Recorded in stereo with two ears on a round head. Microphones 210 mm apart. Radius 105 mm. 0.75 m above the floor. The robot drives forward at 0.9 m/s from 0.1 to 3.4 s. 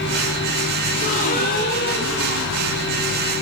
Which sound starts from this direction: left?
A gasp, at 0.9 s.